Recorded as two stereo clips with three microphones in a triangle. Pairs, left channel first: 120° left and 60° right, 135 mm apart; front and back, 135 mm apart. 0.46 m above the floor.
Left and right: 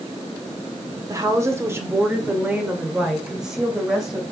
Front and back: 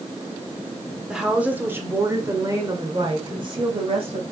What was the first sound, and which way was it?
A woman speaking, 95° right.